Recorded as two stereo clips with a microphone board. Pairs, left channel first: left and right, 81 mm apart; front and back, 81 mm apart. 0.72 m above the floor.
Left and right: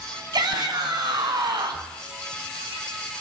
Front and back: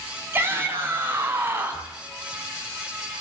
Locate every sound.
0.3 s a shout: 120° right, 5.5 m